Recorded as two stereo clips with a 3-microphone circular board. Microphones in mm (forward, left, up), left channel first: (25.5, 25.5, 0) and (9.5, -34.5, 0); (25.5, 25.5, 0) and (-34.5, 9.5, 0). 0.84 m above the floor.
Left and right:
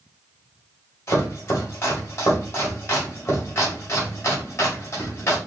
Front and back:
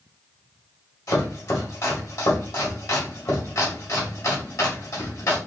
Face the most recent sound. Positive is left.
turn(degrees=30)